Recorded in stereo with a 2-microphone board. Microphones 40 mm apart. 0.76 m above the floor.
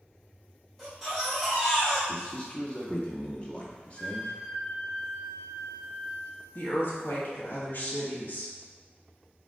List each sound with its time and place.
0.8 s a baby crying: 10° left (ahead or behind), 1.8 m
2.1 s a man speaking: 30° left (ahead or behind), 1.1 m
4.0 s a flute: 55° left (ahead or behind), 1.1 m
6.5 s a woman speaking: 50° left (ahead or behind), 1.1 m